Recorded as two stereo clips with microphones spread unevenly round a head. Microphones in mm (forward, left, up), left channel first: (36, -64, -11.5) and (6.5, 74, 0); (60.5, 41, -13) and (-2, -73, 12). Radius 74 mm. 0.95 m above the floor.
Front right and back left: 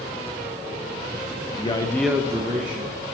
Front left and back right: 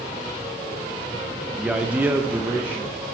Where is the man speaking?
30° right, 1.0 m; by 3.0 s 155° left, 1.5 m.